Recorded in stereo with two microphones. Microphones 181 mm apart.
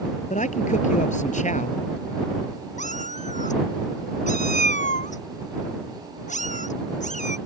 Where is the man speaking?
45° left (ahead or behind).